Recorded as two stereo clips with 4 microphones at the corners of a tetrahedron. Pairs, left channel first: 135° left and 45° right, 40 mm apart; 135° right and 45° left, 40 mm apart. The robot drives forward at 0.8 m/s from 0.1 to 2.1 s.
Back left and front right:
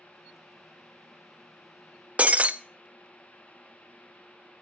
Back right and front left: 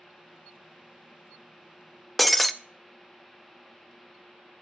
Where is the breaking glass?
50° right, 0.5 m.